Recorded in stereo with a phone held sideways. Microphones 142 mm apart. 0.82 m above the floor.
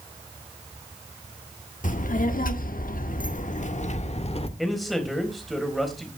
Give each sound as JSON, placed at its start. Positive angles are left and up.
{"t": 1.8, "sound": "a child speaking", "side_deg": 65, "distance_m": 1.6}
{"t": 4.6, "sound": "a man speaking", "side_deg": 0, "distance_m": 4.0}